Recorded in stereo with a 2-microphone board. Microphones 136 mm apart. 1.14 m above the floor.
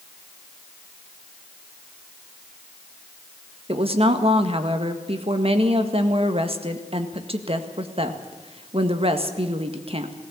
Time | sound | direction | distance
3.7 | a woman speaking | 50° right (ahead or behind) | 1.7 m